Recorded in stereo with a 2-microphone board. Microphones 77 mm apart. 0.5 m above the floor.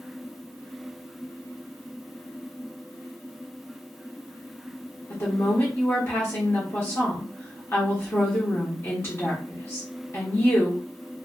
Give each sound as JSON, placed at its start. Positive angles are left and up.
{"t": 5.1, "sound": "a woman speaking", "side_deg": 35, "distance_m": 1.2}